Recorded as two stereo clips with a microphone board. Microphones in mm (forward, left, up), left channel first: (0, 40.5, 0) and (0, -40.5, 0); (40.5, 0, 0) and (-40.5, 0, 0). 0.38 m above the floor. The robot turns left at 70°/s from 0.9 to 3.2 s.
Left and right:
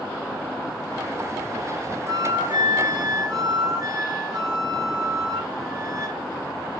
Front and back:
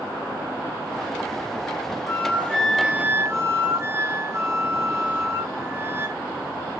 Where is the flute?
45° right, 0.7 m; by 6.2 s 125° right, 0.7 m.